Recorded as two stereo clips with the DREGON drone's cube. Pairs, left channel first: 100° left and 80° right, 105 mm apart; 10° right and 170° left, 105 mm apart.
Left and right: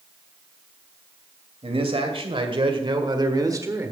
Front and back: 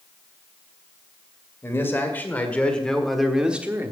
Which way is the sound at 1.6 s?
75° right.